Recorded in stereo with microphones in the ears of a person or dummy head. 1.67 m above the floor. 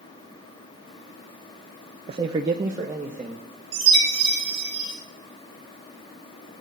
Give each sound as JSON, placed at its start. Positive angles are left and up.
{"t": 2.1, "sound": "a man speaking", "side_deg": -25, "distance_m": 0.5}
{"t": 3.7, "sound": "a chime", "side_deg": -35, "distance_m": 5.0}